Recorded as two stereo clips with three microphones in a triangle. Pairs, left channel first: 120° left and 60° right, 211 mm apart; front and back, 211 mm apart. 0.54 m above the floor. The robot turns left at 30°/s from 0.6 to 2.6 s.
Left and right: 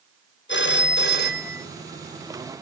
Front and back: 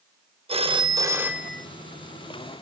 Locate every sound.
0.5 s a phone ringing: 120° left, 0.6 m; by 1.7 s 85° left, 0.6 m